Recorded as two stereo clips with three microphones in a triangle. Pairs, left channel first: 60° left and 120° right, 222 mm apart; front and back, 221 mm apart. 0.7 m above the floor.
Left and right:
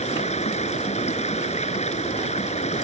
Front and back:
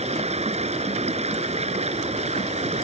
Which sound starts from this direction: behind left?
Running water, at 0.0 s.